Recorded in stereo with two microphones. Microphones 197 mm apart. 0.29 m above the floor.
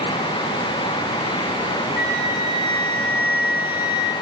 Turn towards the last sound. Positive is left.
turn(degrees=80)